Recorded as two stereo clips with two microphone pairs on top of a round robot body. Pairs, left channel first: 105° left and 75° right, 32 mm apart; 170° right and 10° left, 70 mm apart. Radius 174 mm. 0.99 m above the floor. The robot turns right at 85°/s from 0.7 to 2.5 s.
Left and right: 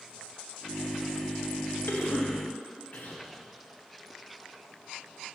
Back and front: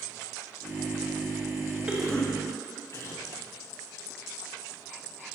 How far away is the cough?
About 1.3 m.